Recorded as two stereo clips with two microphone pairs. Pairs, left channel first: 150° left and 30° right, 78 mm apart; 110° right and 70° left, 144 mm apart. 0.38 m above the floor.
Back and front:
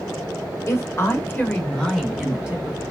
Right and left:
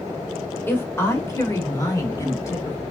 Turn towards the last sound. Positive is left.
turn(degrees=-70)